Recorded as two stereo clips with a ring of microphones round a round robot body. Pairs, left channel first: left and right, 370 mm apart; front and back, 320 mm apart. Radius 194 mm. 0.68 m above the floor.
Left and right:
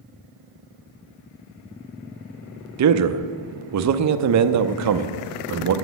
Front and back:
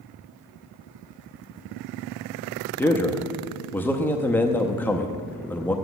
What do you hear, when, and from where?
2.8 s a man speaking: 80° right, 0.7 m